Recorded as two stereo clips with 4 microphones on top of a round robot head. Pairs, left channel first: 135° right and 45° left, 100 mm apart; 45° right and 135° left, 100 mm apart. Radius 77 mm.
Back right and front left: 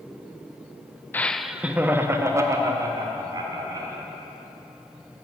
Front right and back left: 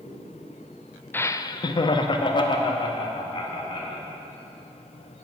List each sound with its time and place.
1.1 s laughter: 90° right, 0.5 m; by 4.0 s 5° right, 2.5 m